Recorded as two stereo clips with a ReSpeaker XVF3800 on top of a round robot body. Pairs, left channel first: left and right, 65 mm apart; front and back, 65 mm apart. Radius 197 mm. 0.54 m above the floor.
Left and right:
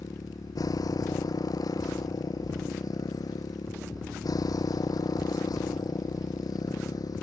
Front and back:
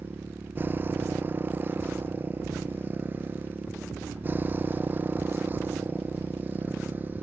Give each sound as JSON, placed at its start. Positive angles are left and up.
{"t": 0.0, "sound": "a motorcycle", "azimuth_deg": 120}